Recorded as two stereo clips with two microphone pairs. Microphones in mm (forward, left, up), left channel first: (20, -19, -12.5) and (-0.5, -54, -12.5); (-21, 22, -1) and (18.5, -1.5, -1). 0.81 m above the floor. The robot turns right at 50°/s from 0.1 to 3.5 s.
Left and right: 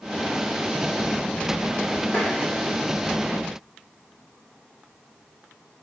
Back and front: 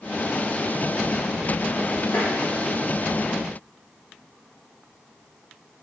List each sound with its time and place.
2.1 s tapping: 130° left, 1.3 m; by 2.3 s 135° left, 1.3 m